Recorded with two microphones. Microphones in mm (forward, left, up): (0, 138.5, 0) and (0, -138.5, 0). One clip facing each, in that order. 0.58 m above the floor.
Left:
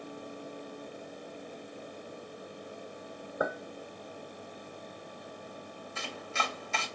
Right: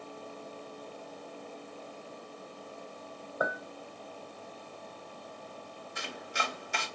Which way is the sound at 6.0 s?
15° right (ahead or behind).